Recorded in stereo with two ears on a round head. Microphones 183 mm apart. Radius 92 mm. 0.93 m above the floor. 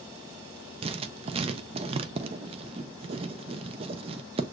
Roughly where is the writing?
Right.